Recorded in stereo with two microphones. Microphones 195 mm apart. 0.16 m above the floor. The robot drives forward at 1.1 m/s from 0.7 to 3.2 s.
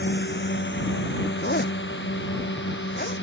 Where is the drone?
70° left (ahead or behind); by 3.2 s 85° left.